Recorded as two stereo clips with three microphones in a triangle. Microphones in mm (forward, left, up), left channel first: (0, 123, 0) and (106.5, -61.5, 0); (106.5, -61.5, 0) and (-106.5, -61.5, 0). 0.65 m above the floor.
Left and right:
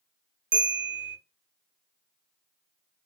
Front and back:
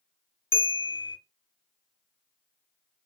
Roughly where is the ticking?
I don't hear ticking.